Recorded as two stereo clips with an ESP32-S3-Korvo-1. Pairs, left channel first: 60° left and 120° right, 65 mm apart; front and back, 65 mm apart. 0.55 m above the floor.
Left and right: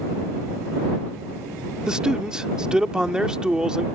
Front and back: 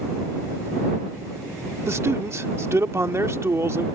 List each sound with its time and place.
1.9 s a man speaking: 165° left